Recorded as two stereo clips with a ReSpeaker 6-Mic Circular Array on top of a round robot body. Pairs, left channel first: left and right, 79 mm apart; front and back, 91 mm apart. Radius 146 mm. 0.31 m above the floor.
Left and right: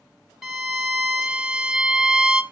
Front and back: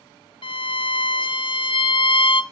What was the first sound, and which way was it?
A violin, 5° right.